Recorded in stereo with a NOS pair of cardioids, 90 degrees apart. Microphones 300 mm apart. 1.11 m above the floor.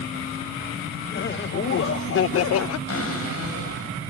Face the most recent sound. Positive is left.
turn(degrees=50)